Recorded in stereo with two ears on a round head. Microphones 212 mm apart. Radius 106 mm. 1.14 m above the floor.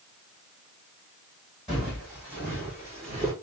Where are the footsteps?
Centre (ahead or behind), 4 m; by 3.3 s 15° right (ahead or behind), 4 m.